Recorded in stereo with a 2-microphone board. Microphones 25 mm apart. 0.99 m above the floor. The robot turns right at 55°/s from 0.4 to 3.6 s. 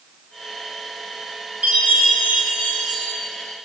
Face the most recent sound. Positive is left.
turn(degrees=15)